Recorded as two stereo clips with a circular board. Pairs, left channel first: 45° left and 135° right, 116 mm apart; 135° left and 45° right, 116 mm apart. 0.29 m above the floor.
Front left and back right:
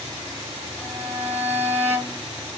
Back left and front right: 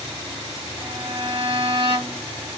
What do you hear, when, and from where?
0.8 s a violin: 65° right, 1.3 m